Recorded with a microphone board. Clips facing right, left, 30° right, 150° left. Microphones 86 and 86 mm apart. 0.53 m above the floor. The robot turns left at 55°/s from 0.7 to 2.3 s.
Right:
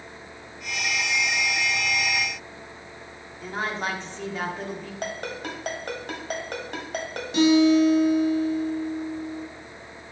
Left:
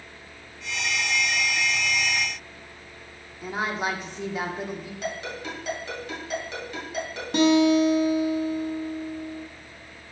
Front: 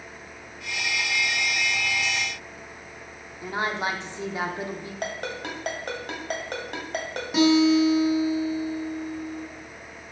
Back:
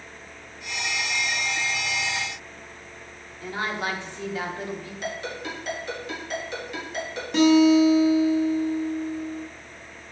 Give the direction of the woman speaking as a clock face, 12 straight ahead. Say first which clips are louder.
Left 1 dB, front 1 dB; 11 o'clock.